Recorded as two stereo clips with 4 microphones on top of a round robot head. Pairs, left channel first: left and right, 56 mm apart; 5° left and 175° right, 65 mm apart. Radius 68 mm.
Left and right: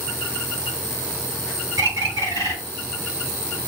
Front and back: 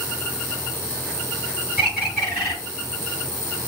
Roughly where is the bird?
Right.